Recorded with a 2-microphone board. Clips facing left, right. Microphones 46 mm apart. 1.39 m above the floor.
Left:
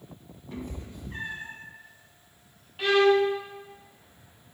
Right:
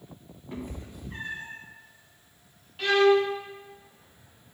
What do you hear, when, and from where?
0.5 s a cat meowing: 15° right (ahead or behind), 1.1 m; by 1.6 s 10° left (ahead or behind), 1.0 m
2.8 s a violin: 10° left (ahead or behind), 1.2 m